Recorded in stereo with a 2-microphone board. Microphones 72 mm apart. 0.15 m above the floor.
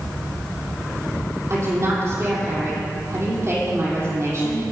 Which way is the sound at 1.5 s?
40° right (ahead or behind).